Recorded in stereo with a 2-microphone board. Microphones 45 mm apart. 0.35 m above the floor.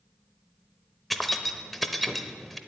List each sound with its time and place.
1.1 s keys jangling: 5° left (ahead or behind), 0.7 m